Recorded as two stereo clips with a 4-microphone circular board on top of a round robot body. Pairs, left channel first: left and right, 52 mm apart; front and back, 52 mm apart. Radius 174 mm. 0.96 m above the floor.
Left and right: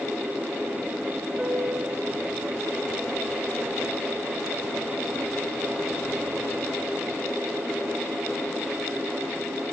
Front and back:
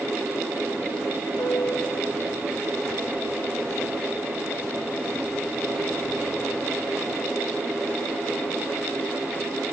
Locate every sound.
1.4 s a piano: 25° right, 2.5 m